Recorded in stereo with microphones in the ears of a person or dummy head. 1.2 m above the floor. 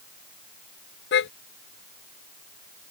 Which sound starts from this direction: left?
A car horn, at 1.1 s.